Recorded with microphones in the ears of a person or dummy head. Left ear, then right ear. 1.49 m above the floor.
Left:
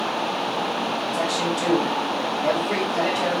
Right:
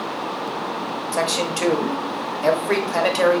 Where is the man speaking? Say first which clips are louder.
Right 5 dB; 50° right (ahead or behind), 0.6 m.